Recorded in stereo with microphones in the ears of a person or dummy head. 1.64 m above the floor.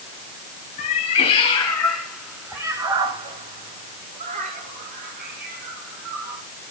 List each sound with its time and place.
0.8 s a cat meowing: 35° left (ahead or behind), 1.9 m; by 6.4 s 50° right (ahead or behind), 4.5 m